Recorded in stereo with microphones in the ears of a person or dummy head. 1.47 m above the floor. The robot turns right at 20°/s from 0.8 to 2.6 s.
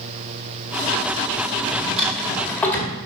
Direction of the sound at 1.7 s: 10° right (ahead or behind).